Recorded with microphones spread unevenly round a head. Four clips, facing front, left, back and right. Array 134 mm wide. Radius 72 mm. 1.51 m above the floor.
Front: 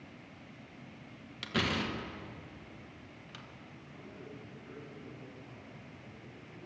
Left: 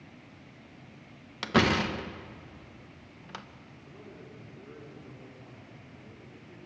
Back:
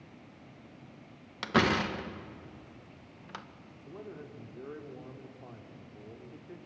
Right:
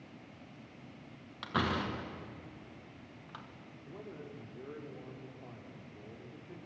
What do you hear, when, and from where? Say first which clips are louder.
1.4 s a door slam: left 8 dB, back 7 dB; 115° left, 1.1 m
3.9 s a man speaking: right 2 dB, back 6 dB; 160° right, 3.5 m